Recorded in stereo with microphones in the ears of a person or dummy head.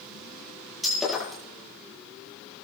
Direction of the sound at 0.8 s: Centre (ahead or behind).